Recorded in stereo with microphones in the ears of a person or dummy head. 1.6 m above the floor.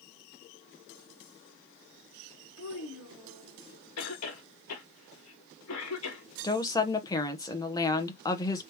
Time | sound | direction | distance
2.6 | a child speaking | 70° left (ahead or behind) | 1.4 m
4.0 | a cough | 80° left | 1.3 m
6.4 | a woman speaking | 15° left (ahead or behind) | 0.9 m